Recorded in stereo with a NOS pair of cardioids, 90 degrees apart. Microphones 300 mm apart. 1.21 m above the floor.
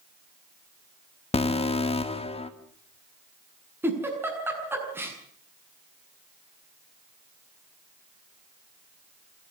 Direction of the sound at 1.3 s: 20° left.